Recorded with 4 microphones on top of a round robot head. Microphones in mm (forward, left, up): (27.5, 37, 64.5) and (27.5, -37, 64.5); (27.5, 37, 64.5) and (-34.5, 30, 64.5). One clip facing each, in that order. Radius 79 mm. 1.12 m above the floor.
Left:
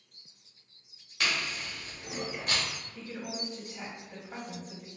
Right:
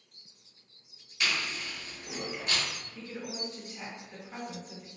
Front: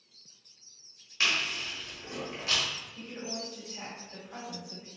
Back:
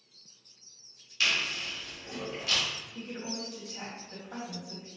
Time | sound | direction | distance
1.2 | chewing | 60° left | 1.1 m
3.0 | a woman speaking | 160° left | 1.9 m